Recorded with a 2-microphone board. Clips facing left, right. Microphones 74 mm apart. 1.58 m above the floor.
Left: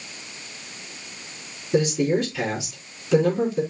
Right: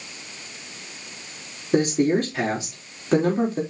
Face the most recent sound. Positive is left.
turn(degrees=-45)  # may be behind; listen again after turning